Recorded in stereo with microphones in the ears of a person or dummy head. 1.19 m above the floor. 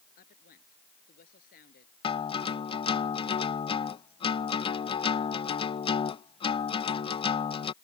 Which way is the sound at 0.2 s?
50° left (ahead or behind).